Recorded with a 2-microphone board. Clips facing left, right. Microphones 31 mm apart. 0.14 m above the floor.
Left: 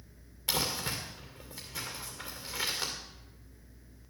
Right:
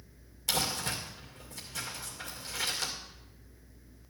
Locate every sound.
0.5 s crumpling: 15° left (ahead or behind), 2.5 m